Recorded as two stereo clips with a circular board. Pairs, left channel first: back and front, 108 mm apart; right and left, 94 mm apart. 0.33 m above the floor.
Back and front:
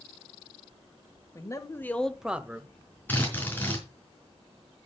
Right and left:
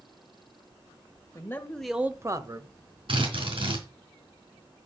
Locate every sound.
1.4 s a man speaking: 135° right, 1.3 m; by 3.0 s 65° left, 1.9 m
3.1 s a drill: 110° left, 4.5 m